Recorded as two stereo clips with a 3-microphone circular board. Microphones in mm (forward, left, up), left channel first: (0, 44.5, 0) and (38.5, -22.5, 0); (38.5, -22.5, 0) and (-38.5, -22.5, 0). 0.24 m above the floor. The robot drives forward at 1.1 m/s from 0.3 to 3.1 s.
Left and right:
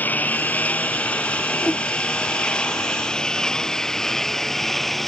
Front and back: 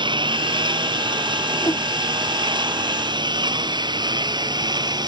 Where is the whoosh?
50° left.